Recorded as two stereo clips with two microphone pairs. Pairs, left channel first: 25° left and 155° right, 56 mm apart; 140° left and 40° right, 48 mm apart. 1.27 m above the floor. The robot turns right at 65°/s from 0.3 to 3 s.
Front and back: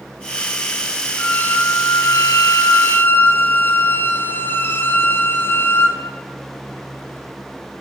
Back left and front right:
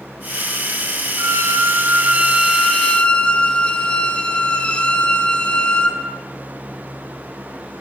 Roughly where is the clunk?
No clunk in this recording.